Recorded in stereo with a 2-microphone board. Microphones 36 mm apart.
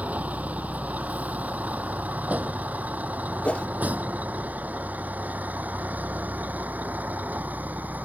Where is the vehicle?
40° right (ahead or behind); by 8.1 s 45° right (ahead or behind).